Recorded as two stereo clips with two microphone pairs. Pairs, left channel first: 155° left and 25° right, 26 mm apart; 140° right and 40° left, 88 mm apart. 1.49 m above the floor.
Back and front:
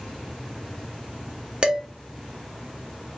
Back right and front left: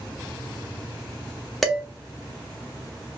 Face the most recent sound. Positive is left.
turn(degrees=-60)